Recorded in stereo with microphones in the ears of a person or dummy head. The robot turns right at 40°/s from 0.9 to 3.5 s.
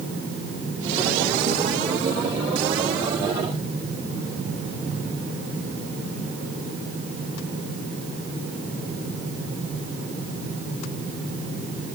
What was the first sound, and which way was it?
Only background noise.